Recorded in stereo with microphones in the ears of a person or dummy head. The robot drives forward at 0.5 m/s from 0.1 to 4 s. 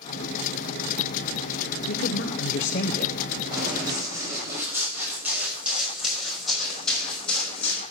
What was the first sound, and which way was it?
A woman speaking, 65° left (ahead or behind).